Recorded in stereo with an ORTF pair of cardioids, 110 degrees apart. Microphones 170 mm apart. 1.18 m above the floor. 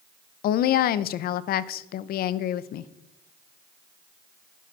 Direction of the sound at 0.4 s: 65° left.